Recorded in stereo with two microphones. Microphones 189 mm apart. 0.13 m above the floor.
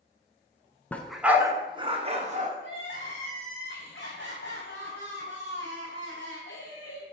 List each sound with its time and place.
0.9 s a dog barking: 10° left (ahead or behind), 0.6 m; by 2.5 s 40° right (ahead or behind), 1.0 m
2.6 s crying: 75° left (ahead or behind), 3 m